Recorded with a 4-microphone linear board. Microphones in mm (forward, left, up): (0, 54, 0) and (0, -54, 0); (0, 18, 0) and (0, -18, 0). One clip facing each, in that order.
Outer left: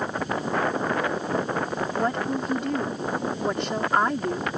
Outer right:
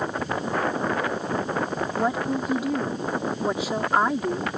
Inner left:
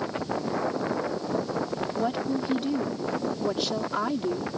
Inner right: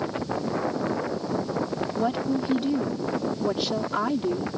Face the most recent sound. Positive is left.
turn(degrees=-5)  # may be behind; listen again after turning